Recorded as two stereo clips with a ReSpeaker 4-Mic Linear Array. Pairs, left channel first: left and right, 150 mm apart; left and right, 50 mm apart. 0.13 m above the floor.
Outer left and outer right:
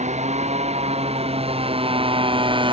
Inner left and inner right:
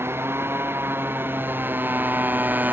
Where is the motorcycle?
50° right (ahead or behind); by 2.7 s 35° right (ahead or behind).